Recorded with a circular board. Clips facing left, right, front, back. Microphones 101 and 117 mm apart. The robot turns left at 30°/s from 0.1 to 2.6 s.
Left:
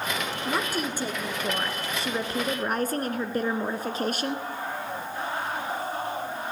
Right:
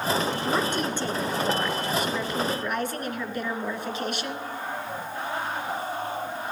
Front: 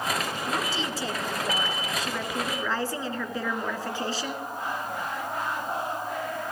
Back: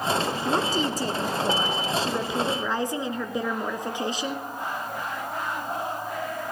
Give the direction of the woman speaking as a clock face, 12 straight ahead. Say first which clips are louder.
Right 3 dB, back 7 dB; 6 o'clock.